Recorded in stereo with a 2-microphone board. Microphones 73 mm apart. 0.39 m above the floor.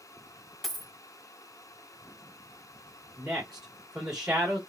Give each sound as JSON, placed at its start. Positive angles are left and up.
{"t": 0.6, "sound": "a dropped coin", "side_deg": 5, "distance_m": 1.2}
{"t": 3.2, "sound": "a man speaking", "side_deg": -5, "distance_m": 1.3}